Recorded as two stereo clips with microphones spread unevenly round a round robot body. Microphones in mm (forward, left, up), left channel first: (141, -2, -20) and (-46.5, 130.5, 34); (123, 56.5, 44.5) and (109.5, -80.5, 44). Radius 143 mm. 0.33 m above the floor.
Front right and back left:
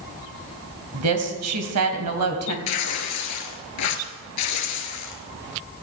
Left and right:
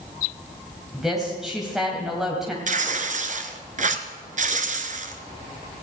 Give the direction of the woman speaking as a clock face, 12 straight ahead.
6 o'clock.